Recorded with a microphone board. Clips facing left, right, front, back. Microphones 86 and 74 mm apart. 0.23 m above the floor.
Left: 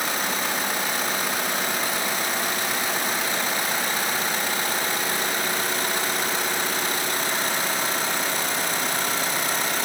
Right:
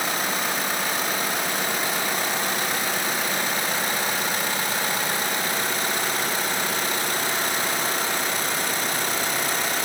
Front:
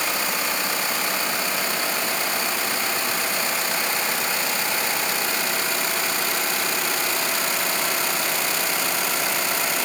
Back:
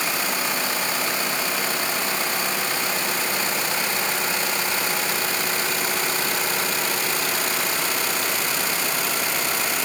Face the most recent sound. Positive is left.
No sound to turn to.